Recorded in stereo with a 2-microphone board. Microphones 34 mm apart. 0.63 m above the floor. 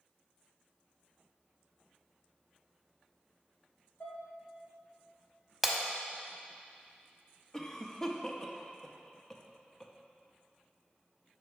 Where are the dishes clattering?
65° left (ahead or behind), 1.4 m.